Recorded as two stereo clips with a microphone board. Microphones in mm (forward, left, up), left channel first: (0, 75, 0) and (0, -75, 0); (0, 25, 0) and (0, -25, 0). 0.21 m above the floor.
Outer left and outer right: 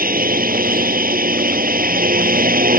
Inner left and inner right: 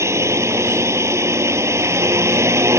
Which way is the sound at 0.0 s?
75° right (ahead or behind).